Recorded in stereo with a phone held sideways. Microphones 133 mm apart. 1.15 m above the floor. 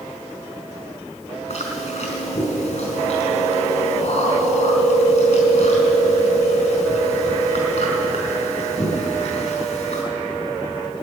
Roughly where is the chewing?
Left.